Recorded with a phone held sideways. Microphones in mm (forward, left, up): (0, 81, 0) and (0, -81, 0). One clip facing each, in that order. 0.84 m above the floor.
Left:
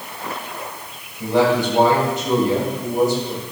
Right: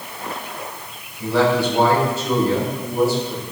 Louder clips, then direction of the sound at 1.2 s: Left 1 dB; 20° left (ahead or behind).